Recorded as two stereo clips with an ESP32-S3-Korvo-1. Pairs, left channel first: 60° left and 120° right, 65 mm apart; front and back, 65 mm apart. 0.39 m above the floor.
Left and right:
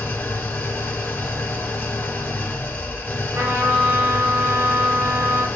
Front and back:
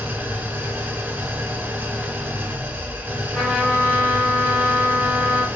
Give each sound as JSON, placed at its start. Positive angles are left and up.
{"t": 0.0, "sound": "an engine running", "azimuth_deg": 120, "distance_m": 1.0}
{"t": 3.3, "sound": "a trumpet", "azimuth_deg": -85, "distance_m": 2.0}